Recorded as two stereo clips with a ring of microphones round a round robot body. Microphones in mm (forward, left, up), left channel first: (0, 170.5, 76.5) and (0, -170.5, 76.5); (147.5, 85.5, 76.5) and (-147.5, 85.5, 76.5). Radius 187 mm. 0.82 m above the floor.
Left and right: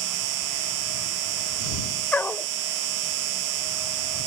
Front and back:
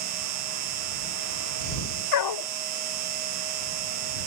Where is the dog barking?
5° left.